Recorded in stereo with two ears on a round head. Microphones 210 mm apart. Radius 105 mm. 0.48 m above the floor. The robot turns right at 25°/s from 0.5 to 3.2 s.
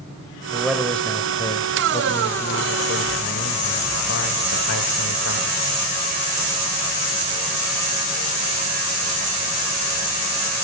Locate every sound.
0.5 s a man speaking: 5° right, 1.7 m; by 5.6 s 60° left, 1.7 m